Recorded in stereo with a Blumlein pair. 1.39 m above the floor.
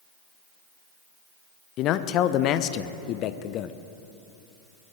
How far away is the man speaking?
About 0.6 m.